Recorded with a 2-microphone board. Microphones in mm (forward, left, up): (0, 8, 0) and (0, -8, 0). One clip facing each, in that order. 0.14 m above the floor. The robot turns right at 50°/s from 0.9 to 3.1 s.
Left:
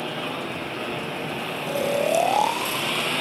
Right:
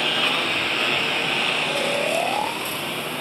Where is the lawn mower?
90° right; by 3.2 s 20° left.